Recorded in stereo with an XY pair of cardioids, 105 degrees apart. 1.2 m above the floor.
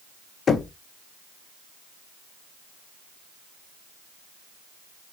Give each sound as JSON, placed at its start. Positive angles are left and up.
{"t": 0.5, "sound": "knocking", "azimuth_deg": 45, "distance_m": 0.9}